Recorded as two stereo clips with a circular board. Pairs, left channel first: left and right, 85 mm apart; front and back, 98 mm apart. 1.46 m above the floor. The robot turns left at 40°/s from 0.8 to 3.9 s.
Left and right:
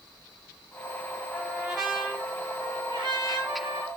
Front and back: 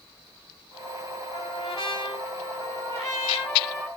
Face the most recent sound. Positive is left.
turn(degrees=-90)